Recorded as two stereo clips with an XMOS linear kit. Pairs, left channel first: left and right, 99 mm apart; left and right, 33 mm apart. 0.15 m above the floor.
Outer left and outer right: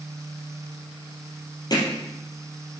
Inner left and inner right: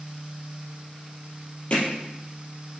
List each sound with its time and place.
1.7 s hammering: 45° left (ahead or behind), 3.5 m